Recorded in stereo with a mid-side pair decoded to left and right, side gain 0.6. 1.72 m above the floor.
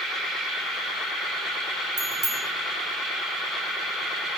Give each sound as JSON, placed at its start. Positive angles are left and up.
{"t": 2.0, "sound": "a bicycle bell", "azimuth_deg": -20, "distance_m": 9.0}